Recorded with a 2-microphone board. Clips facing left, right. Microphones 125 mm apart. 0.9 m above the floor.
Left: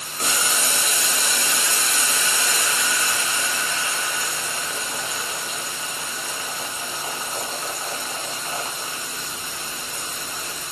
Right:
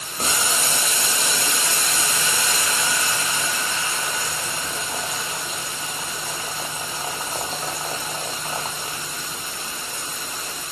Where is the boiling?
30° right (ahead or behind), 0.6 m.